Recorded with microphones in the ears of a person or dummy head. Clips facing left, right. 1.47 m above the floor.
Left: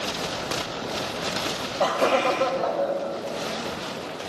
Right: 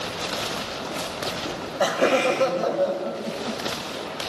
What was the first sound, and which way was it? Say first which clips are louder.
Laughter: right 1 dB; 10° right (ahead or behind).